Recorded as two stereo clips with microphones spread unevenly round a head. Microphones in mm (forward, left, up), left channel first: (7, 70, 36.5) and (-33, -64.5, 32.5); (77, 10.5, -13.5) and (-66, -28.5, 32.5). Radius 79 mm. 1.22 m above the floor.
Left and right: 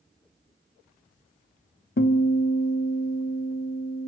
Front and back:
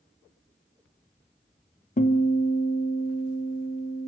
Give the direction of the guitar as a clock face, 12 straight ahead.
10 o'clock.